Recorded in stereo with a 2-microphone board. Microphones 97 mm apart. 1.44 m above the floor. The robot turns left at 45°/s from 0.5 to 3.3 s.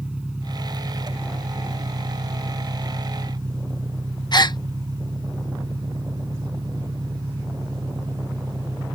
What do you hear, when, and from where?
0.0 s an engine running: 10° right; by 9.0 s 135° right
4.3 s a gasp: 45° left (ahead or behind)